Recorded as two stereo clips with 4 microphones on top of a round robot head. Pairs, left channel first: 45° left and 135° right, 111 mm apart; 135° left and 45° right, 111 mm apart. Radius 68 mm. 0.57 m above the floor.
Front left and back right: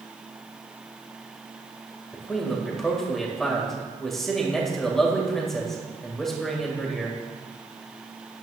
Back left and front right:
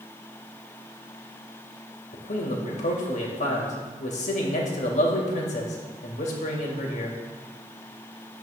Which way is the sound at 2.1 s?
135° left.